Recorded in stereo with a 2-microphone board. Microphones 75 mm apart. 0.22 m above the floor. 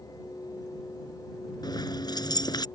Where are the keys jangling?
70° left (ahead or behind).